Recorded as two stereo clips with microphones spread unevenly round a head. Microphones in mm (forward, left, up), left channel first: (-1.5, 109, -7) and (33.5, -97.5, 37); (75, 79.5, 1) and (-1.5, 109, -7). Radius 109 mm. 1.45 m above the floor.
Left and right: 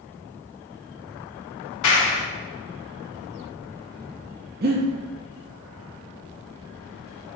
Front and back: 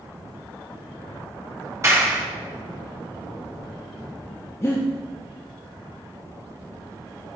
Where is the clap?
100° left, 2.0 m.